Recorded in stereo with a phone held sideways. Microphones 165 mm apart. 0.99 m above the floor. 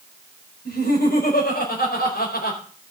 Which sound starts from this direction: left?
Laughter, at 0.7 s.